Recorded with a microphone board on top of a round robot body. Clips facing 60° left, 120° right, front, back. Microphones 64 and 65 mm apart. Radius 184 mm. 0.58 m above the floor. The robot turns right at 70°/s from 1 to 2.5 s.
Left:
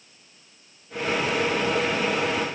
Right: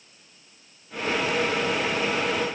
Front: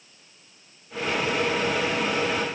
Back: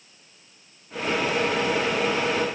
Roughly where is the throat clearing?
I don't hear throat clearing.